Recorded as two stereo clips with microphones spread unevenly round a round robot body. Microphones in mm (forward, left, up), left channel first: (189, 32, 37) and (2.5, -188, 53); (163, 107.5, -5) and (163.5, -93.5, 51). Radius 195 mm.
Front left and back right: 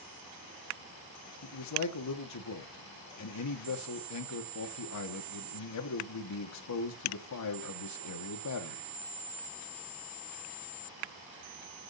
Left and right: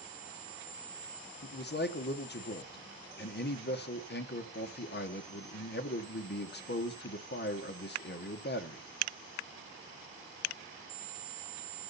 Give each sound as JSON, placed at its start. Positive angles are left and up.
{"t": 1.4, "sound": "a man speaking", "azimuth_deg": 75, "distance_m": 1.5}